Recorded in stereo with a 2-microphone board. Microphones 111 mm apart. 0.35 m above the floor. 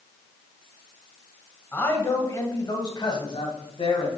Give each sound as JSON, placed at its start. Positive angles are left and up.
{"t": 1.7, "sound": "a man speaking", "side_deg": 15, "distance_m": 2.0}